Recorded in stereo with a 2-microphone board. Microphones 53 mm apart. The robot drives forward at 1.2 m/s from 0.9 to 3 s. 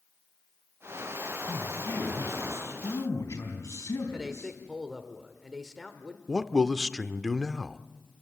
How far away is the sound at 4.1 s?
About 1.5 m.